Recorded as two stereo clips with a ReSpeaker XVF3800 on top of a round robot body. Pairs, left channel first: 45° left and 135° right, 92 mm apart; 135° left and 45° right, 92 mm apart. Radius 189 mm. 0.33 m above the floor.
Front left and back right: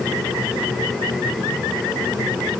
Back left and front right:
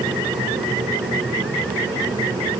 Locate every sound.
Only background noise.